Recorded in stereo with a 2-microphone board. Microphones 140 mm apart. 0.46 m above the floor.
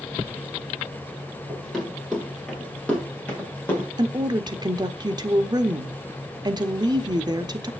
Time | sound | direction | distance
1.5 | running footsteps | centre (ahead or behind) | 8 m
4.0 | a woman speaking | 30° right (ahead or behind) | 0.8 m